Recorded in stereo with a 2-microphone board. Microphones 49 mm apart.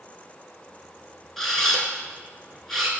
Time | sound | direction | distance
1.4 | a camera shutter | 5° left (ahead or behind) | 0.7 m